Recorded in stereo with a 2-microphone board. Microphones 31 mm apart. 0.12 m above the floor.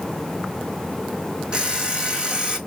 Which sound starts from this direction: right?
An alarm clock, at 1.5 s.